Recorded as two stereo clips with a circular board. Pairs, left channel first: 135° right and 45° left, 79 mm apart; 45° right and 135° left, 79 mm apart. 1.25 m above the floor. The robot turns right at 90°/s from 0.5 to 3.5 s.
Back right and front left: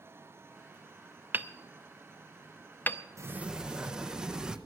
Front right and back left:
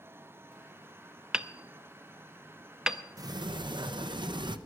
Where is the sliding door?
95° left, 0.7 m; by 4.6 s 125° left, 0.7 m.